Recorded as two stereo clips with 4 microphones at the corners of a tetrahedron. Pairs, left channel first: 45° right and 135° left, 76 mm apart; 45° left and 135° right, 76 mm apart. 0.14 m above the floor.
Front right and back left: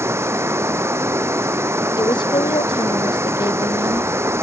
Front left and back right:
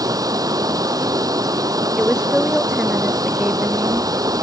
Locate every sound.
0.0 s running water: 170° right
2.0 s a woman speaking: 55° right